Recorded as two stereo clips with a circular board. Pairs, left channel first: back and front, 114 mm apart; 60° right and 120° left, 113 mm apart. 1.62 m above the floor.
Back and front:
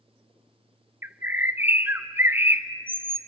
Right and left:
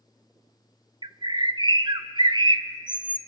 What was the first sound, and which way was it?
A bird, 75° left.